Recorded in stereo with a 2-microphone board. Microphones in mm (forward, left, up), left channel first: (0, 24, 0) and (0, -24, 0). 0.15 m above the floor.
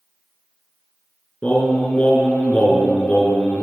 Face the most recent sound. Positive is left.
turn(degrees=30)  # may be behind; listen again after turning